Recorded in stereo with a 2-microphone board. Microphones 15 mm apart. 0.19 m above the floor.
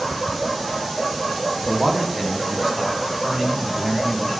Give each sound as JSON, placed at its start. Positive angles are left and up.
{"t": 1.6, "sound": "a man speaking", "side_deg": -25, "distance_m": 1.2}